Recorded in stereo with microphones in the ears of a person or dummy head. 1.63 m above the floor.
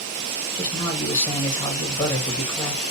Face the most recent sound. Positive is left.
turn(degrees=15)  # may be behind; listen again after turning